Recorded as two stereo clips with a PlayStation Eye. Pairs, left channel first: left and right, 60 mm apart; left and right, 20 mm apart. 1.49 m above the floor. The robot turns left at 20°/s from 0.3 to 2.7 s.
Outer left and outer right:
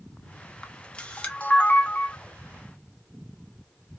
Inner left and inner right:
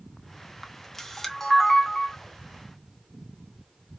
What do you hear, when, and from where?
0.6 s a camera shutter: 15° left (ahead or behind), 0.9 m; by 2.2 s 30° left (ahead or behind), 0.9 m